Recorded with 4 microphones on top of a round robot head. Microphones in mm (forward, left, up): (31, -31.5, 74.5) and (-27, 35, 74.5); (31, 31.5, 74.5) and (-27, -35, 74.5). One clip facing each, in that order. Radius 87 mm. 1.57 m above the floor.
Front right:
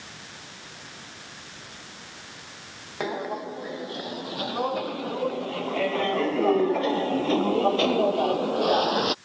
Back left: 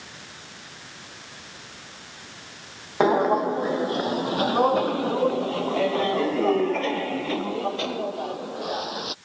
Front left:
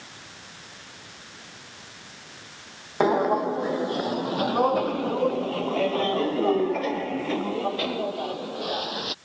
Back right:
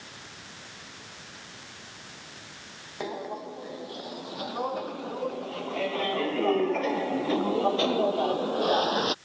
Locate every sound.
3.0 s footsteps: 85° left; by 9.2 s 85° right